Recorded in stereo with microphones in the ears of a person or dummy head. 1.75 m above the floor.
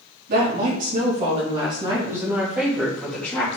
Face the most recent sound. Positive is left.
turn(degrees=15)  # may be behind; listen again after turning